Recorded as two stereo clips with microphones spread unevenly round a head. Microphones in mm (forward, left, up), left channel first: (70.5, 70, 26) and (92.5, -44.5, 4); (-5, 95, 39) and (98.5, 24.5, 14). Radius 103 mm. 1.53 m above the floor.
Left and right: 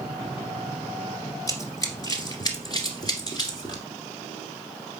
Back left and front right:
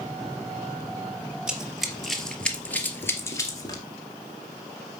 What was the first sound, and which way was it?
Running footsteps, 55° left.